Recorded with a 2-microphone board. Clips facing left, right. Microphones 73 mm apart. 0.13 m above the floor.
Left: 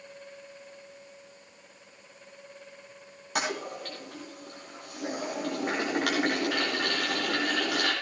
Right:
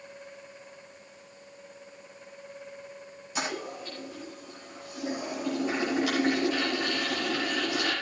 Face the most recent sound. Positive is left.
turn(degrees=65)  # may be behind; listen again after turning